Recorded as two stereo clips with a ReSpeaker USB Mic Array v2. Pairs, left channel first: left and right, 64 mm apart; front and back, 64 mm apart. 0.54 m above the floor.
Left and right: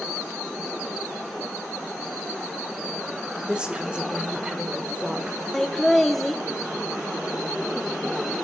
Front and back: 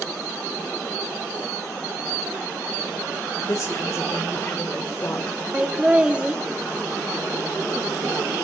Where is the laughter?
165° left, 0.9 m.